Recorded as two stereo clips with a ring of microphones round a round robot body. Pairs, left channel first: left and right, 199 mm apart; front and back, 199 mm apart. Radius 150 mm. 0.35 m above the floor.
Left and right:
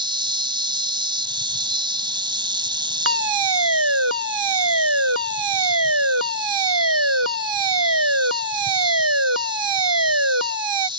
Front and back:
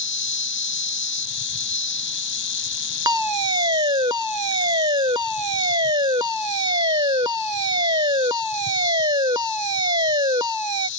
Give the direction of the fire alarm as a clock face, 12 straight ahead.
3 o'clock.